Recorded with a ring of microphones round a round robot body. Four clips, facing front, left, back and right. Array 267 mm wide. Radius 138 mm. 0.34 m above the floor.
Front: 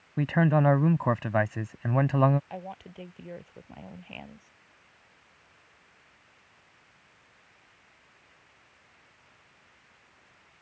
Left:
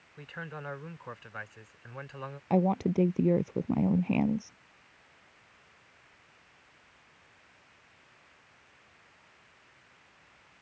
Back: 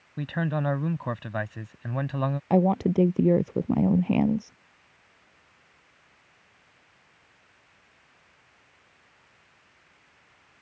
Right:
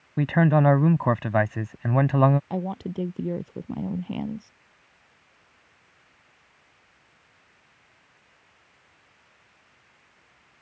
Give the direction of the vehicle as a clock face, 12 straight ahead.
No vehicle in this recording.